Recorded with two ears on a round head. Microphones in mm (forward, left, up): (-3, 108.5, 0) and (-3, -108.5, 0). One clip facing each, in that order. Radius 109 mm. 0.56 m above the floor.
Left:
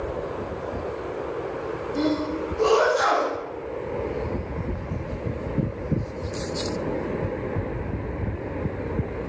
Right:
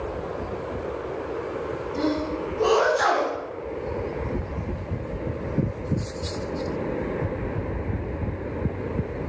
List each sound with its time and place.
1.9 s a sneeze: 15° left (ahead or behind), 3 m